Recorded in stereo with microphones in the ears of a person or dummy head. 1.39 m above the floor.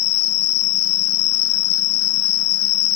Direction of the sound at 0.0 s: 60° left (ahead or behind).